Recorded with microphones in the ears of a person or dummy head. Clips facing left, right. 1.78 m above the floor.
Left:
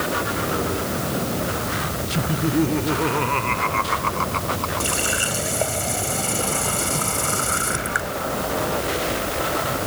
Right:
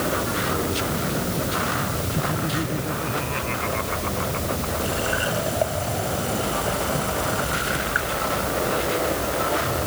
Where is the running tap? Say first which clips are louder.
Right 1 dB; 60° left (ahead or behind).